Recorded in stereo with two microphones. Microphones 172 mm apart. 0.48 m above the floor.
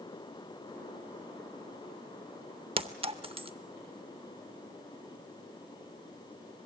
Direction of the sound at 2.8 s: 35° right (ahead or behind).